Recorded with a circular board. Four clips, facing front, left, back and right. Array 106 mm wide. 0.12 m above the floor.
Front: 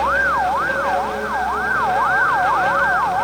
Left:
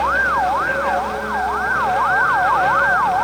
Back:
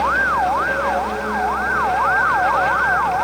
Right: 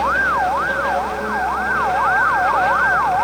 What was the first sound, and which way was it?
Only background noise.